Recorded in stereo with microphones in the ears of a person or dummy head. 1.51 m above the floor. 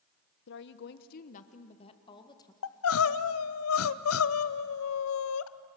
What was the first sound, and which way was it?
A woman speaking, 70° left (ahead or behind).